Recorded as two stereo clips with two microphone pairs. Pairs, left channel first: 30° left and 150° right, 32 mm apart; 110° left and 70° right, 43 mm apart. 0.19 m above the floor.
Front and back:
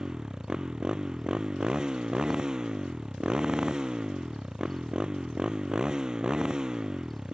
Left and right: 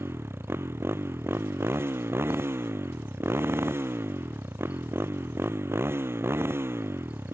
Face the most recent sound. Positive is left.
turn(degrees=-85)